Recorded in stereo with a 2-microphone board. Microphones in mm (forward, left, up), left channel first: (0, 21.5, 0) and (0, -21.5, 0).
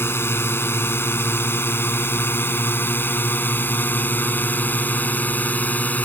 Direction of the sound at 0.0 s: 70° left (ahead or behind).